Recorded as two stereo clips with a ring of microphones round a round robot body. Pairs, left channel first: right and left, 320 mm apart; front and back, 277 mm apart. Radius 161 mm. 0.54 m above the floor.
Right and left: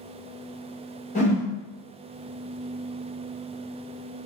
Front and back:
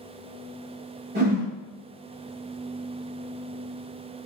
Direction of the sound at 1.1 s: 145° right.